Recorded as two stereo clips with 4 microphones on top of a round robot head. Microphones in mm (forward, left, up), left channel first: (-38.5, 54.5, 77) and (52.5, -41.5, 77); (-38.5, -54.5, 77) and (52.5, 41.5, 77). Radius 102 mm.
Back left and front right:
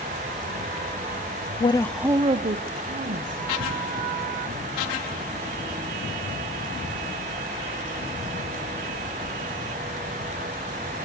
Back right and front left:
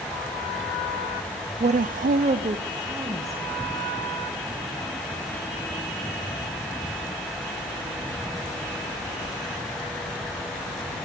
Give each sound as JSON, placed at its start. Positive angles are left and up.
{"t": 1.6, "sound": "a woman speaking", "azimuth_deg": 90, "distance_m": 0.6}